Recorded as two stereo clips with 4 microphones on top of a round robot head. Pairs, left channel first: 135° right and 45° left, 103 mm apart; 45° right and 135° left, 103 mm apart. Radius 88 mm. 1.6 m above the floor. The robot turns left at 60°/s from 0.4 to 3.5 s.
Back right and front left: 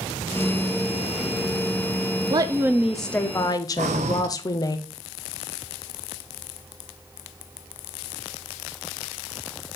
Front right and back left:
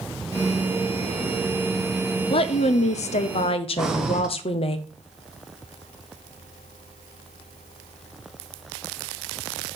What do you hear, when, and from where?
2.3 s a woman speaking: 5° right, 0.6 m; by 4.8 s 80° right, 0.6 m
3.8 s breathing: 50° left, 0.5 m